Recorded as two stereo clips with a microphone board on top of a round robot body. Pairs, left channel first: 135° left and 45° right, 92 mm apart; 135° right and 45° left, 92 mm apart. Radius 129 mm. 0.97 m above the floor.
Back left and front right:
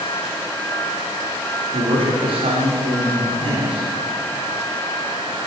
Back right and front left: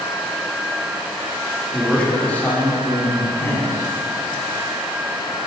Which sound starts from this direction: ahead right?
A man speaking, at 1.7 s.